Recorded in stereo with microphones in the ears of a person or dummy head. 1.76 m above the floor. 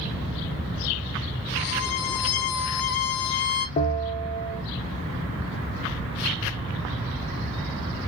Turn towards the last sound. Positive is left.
turn(degrees=35)  # may be behind; listen again after turning